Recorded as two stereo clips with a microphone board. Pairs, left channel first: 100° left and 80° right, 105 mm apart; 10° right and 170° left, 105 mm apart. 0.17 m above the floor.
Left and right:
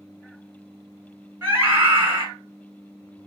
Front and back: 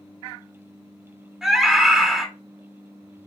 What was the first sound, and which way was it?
A scream, 110° right.